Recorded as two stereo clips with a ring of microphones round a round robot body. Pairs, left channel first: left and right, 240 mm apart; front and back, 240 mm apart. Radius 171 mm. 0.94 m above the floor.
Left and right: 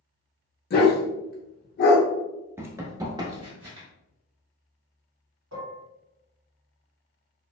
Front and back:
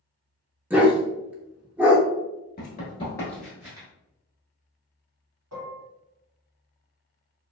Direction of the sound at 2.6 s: 15° right.